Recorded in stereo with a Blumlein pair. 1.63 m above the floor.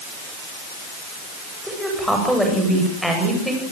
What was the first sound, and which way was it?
A woman speaking, straight ahead.